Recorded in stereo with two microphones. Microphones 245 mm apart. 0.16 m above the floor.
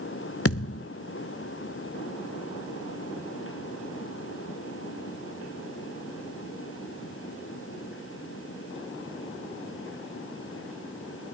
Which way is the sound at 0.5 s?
65° left (ahead or behind).